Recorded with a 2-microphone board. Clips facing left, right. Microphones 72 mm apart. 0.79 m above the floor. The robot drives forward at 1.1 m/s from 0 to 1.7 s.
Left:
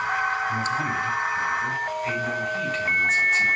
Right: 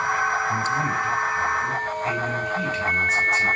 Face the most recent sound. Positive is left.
turn(degrees=-5)  # may be behind; listen again after turning